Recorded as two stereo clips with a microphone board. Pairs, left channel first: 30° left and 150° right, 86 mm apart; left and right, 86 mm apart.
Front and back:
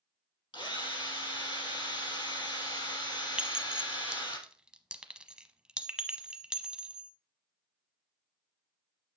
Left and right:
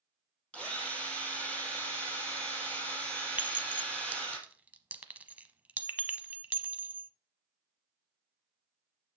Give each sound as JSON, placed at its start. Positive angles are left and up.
{"t": 0.5, "sound": "a drill", "azimuth_deg": 15, "distance_m": 4.0}
{"t": 3.4, "sound": "a clink", "azimuth_deg": -100, "distance_m": 0.8}